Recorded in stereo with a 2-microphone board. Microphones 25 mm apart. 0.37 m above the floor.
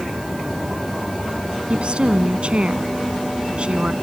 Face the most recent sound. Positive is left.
turn(degrees=-50)  # may be behind; listen again after turning